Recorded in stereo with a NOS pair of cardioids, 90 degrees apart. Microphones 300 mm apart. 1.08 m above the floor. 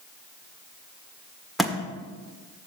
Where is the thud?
Straight ahead, 1.5 m.